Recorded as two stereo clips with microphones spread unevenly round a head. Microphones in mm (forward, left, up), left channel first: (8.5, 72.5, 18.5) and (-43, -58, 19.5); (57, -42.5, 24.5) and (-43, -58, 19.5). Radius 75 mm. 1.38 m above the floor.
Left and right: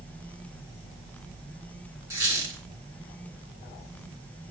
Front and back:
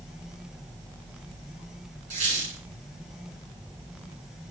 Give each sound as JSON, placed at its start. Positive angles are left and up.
{"t": 2.1, "sound": "a squeak", "azimuth_deg": 180, "distance_m": 3.0}